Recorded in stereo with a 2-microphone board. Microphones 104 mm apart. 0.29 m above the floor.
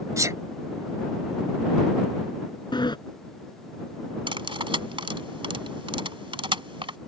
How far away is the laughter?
I don't hear laughter.